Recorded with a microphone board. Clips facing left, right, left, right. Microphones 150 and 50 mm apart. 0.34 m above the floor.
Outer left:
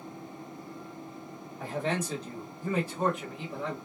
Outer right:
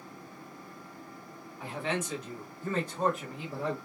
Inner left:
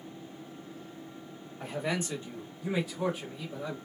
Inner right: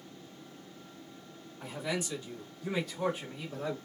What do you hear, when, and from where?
1.6 s a man speaking: 45° left (ahead or behind), 1.3 m; by 3.8 s 20° right (ahead or behind), 1.2 m